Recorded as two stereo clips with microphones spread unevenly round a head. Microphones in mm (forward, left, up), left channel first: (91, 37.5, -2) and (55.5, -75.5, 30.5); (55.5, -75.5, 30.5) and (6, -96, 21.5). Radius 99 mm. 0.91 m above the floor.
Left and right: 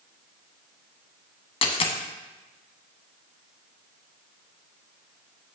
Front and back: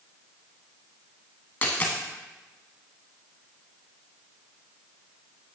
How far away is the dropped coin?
About 0.9 m.